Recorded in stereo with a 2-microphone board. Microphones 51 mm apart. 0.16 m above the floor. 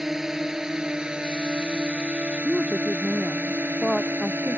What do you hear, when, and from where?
0.0 s a drone: 5° right (ahead or behind); by 4.6 s 45° right (ahead or behind)
2.4 s a woman speaking: 10° left (ahead or behind)